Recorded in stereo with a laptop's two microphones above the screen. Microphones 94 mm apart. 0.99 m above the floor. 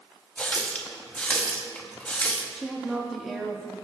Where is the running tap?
15° left (ahead or behind), 0.7 m.